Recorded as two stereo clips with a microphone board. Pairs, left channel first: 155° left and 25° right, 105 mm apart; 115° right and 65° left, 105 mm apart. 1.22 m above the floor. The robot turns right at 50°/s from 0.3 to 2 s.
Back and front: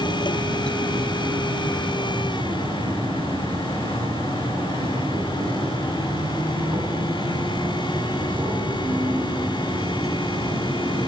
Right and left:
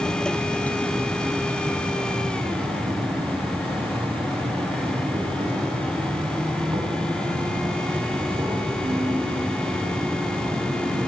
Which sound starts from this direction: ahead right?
An insect, at 0.0 s.